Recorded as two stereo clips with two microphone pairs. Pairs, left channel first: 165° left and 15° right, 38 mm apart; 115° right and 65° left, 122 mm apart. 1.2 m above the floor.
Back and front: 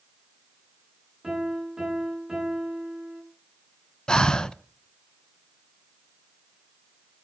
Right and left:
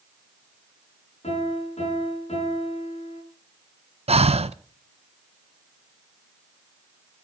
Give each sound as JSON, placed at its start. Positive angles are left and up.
{"t": 1.2, "sound": "a piano", "azimuth_deg": -85, "distance_m": 7.5}
{"t": 4.1, "sound": "breathing", "azimuth_deg": 95, "distance_m": 0.6}